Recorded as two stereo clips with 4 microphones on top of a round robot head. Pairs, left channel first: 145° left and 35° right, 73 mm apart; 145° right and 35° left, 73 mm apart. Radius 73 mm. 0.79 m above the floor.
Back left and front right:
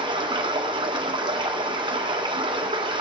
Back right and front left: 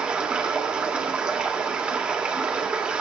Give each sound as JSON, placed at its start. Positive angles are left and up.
{"t": 0.0, "sound": "running water", "azimuth_deg": -40, "distance_m": 1.9}